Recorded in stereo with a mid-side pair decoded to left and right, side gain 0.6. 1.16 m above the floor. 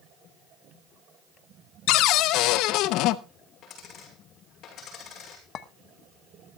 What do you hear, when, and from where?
1.9 s a cupboard door: 70° left, 0.7 m
3.6 s a dropped coin: 50° left, 6 m
5.5 s a clink: 55° left, 1.2 m